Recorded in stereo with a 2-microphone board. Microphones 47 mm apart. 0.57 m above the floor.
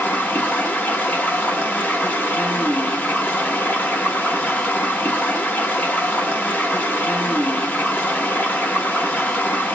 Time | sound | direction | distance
0.0 | running water | 40° left (ahead or behind) | 1.3 m